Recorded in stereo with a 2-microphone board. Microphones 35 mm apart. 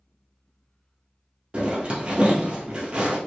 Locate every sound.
1.5 s a zipper: 30° right (ahead or behind), 2.0 m